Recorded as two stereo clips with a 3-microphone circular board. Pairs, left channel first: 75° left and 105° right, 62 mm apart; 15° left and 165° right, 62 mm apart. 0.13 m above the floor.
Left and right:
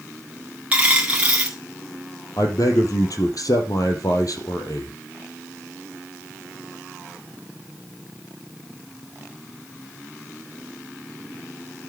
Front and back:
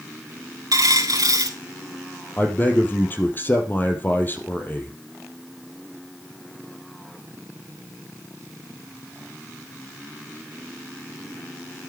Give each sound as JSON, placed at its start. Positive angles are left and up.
{"t": 0.7, "sound": "a dropped coin", "azimuth_deg": -175, "distance_m": 2.0}
{"t": 2.4, "sound": "a man speaking", "azimuth_deg": 70, "distance_m": 3.0}